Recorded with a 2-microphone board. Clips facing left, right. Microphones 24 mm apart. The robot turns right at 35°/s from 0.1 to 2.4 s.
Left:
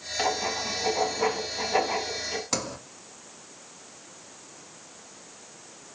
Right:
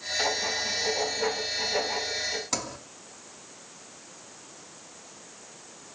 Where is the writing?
25° left, 3 m; by 2.4 s 100° left, 3 m.